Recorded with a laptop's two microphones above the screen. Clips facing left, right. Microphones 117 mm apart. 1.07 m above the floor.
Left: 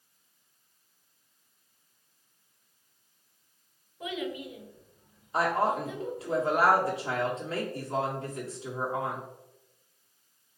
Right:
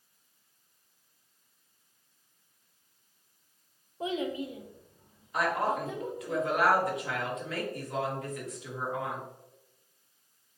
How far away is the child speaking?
About 0.5 m.